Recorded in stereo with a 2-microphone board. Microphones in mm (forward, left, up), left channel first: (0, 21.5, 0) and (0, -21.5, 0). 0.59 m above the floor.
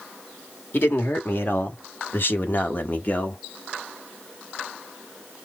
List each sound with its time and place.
0.7 s a man speaking: 55° left (ahead or behind), 1.6 m; by 3.4 s 35° left (ahead or behind), 1.0 m